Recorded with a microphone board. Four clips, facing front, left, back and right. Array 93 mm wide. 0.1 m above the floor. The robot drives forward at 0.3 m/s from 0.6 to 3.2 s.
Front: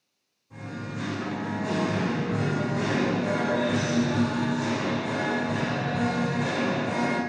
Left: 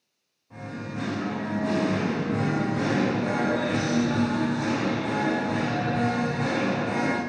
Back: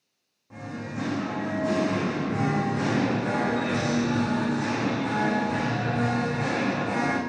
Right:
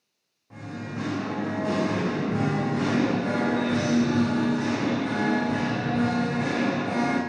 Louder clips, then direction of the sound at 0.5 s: Even, back 1 dB; 140° right.